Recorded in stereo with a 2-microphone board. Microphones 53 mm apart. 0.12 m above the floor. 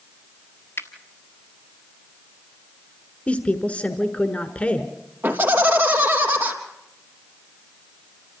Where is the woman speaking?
25° left (ahead or behind), 1.4 m.